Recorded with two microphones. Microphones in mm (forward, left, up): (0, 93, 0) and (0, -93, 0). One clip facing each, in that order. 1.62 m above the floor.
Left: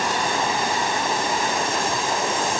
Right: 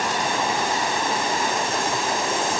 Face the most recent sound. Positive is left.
No sound to turn to.